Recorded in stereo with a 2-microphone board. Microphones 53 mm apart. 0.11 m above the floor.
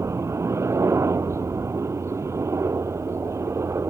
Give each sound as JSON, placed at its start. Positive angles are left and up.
{"t": 0.0, "sound": "a helicopter", "side_deg": -60}